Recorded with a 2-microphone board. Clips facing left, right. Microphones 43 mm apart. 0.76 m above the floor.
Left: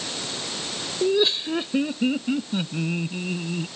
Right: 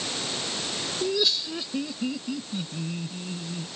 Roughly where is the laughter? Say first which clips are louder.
Left 6 dB; left.